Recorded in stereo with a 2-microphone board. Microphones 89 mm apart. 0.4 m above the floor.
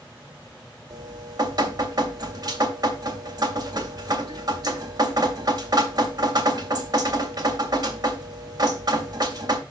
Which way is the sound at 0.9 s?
45° right (ahead or behind).